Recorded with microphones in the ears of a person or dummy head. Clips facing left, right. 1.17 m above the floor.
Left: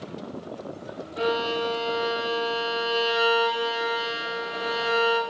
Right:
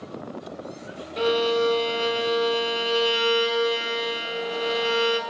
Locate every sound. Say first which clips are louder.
1.2 s a violin: right 4 dB; 35° right (ahead or behind), 1.3 m